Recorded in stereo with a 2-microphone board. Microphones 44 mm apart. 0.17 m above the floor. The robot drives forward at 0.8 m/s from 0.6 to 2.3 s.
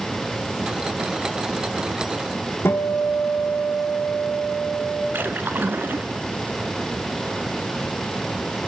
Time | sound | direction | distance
2.6 | a guitar | 70° left (ahead or behind) | 4.5 m
5.1 | a splash | 50° right (ahead or behind) | 1.7 m